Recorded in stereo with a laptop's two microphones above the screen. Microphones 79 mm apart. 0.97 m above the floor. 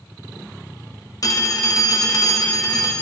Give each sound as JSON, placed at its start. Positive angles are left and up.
{"t": 1.2, "sound": "a phone ringing", "side_deg": 50, "distance_m": 0.7}